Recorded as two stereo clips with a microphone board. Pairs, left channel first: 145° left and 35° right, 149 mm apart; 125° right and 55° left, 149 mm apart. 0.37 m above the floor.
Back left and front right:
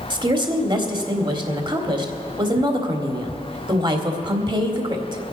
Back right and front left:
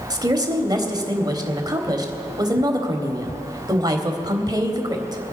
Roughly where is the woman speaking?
Ahead.